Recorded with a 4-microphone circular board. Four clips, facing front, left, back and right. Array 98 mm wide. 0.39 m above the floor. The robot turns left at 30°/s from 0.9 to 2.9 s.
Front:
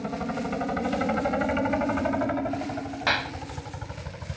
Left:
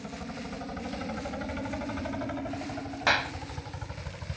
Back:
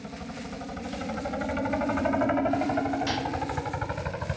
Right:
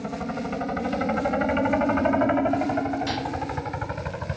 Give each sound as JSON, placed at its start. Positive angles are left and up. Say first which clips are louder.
{"t": 0.0, "sound": "a helicopter", "louder": "right 9 dB, front 8 dB", "azimuth_deg": -55}
{"t": 3.1, "sound": "a clap", "louder": "even, front 2 dB", "azimuth_deg": 55}